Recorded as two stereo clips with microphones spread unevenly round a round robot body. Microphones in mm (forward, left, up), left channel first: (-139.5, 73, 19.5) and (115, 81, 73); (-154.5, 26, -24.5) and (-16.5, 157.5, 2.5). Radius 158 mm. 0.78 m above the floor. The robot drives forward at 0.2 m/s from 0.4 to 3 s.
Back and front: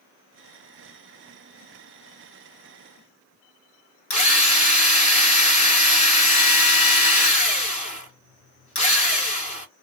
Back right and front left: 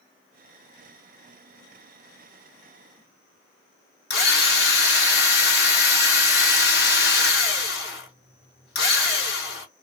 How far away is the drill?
About 1.9 m.